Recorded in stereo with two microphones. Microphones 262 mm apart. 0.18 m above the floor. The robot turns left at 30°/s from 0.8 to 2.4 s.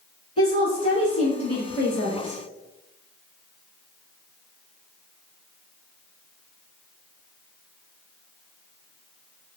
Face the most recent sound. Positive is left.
turn(degrees=175)